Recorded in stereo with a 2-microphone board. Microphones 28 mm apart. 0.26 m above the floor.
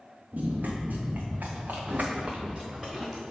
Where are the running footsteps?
70° right (ahead or behind), 1.9 m; by 3.2 s 5° right (ahead or behind), 1.7 m.